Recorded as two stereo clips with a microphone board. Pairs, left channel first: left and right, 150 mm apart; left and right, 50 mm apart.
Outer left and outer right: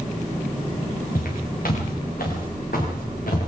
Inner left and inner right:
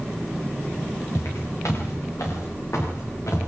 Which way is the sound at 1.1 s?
80° left.